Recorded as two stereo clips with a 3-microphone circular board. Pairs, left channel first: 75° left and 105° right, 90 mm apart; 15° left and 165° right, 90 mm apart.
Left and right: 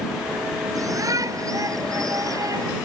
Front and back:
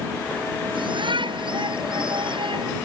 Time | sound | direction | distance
0.8 | a shout | 150° right | ?